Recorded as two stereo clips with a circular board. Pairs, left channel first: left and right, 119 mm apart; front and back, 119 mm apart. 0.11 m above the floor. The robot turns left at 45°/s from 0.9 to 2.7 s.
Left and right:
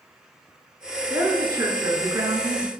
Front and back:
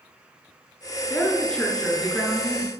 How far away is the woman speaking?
About 1.2 m.